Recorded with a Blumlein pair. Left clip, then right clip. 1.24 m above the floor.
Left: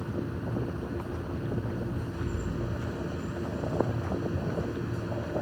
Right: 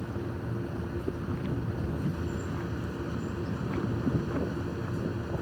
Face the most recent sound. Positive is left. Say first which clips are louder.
# left 2 dB
turn(degrees=0)